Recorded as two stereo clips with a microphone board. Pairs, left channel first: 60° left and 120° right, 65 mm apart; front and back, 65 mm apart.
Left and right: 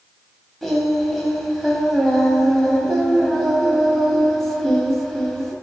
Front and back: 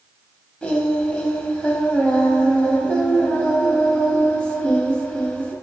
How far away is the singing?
About 0.6 m.